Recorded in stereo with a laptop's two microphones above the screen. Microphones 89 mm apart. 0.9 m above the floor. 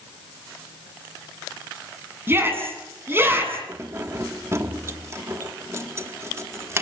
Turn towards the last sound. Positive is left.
turn(degrees=-30)  # may be behind; listen again after turning